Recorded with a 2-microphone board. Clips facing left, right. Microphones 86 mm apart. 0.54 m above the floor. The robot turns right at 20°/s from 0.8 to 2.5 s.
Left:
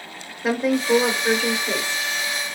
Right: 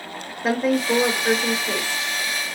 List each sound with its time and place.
0.4 s a woman speaking: 5° left (ahead or behind), 1.2 m; by 2.1 s 25° left (ahead or behind), 1.2 m